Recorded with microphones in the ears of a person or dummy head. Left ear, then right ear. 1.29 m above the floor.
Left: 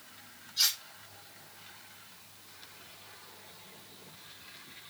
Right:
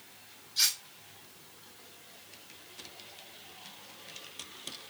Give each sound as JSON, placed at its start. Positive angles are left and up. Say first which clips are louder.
{"t": 0.6, "sound": "cutlery clinking", "louder": "even", "side_deg": -70, "distance_m": 3.0}